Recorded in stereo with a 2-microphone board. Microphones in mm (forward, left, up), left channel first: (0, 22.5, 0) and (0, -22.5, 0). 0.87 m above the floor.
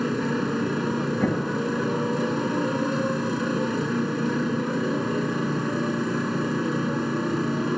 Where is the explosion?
45° left (ahead or behind).